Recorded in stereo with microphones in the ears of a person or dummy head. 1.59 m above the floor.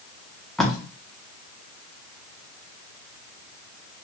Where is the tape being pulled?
5° right (ahead or behind), 0.5 m.